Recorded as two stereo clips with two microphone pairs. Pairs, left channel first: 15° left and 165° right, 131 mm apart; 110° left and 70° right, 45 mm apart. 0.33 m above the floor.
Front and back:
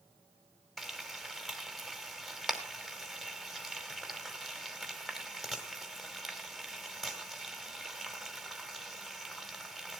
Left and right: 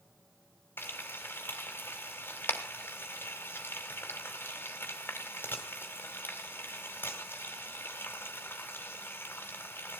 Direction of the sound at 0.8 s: 105° left.